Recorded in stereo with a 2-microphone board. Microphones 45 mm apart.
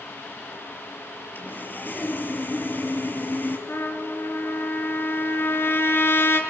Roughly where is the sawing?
Left.